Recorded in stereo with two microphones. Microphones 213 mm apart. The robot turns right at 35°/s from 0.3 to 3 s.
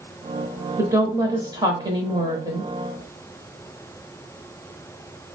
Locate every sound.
0.8 s a woman speaking: 15° right (ahead or behind), 0.9 m; by 2.7 s 20° right (ahead or behind), 0.9 m